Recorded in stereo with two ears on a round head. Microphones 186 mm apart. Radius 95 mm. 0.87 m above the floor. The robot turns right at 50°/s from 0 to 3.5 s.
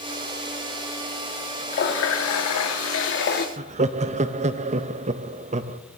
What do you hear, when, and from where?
1.7 s a running tap: 45° left, 0.8 m; by 3.5 s 130° left, 0.8 m
3.6 s laughter: 35° right (ahead or behind), 0.6 m